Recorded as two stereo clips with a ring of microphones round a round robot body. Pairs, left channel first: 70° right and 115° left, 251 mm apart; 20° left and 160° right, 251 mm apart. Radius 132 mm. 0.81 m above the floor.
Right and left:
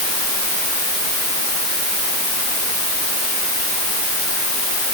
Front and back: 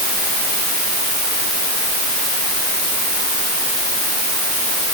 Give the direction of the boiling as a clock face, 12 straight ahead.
I don't hear boiling.